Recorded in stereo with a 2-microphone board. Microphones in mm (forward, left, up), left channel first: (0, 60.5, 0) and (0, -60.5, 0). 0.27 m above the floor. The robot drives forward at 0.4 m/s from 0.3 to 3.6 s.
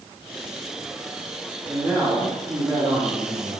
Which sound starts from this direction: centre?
A man speaking, at 1.7 s.